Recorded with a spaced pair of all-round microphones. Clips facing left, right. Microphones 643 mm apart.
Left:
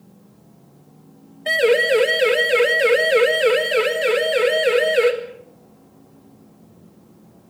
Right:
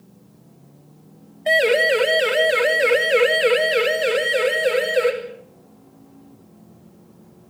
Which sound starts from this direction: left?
A siren, at 1.5 s.